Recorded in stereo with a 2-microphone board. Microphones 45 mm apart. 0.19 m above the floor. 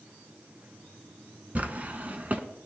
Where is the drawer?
35° right (ahead or behind), 0.8 m.